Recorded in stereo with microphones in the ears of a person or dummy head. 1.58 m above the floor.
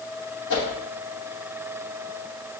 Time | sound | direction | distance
0.5 | a whoosh | 70° left (ahead or behind) | 1.0 m